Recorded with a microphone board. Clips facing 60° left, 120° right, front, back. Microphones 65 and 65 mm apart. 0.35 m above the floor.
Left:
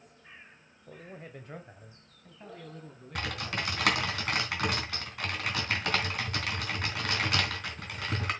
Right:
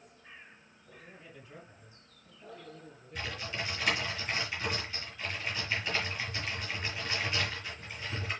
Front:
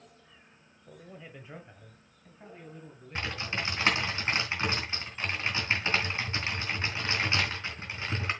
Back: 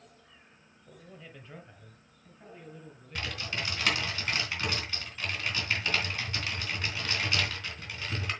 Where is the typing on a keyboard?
60° left, 3 m.